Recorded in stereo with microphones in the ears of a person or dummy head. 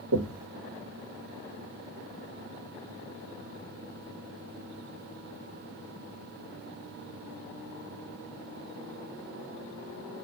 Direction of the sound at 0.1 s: 80° right.